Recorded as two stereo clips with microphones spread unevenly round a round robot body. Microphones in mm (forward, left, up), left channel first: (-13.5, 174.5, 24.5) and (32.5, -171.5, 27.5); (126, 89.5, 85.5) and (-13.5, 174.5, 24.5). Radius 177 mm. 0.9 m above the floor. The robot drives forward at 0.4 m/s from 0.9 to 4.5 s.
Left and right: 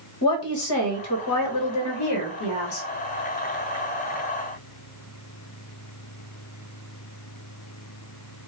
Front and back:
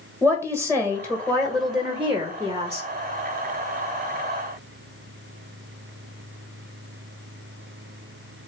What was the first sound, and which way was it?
A woman speaking, 60° left.